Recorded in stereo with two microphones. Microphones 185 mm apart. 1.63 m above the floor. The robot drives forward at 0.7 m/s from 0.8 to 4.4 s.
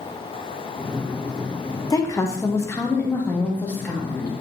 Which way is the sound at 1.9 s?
20° left (ahead or behind).